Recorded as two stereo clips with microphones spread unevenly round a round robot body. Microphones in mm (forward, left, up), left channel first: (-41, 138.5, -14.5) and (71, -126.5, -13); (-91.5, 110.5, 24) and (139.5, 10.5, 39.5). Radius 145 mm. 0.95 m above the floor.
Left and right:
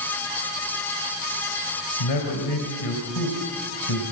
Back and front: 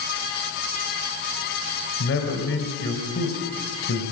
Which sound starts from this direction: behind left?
A man speaking, at 2.0 s.